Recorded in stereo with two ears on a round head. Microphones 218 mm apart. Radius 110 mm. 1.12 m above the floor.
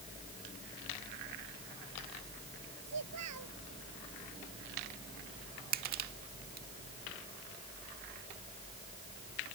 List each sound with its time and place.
2.9 s a child speaking: 80° right
5.7 s crushing: 40° right (ahead or behind)